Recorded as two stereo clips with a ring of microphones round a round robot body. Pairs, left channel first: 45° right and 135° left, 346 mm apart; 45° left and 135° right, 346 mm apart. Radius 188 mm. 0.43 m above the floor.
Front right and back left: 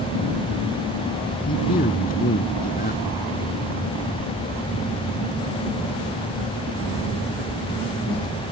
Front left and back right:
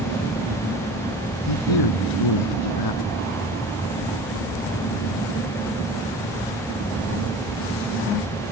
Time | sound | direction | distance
1.5 | a man speaking | 20° left | ?